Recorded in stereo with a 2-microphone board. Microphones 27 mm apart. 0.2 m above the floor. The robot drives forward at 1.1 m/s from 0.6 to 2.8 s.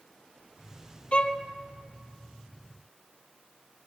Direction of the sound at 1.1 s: 40° left (ahead or behind).